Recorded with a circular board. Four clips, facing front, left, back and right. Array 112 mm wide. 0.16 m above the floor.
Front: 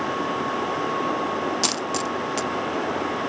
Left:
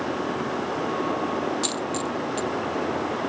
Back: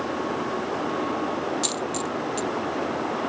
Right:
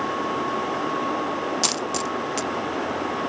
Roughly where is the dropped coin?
Ahead right.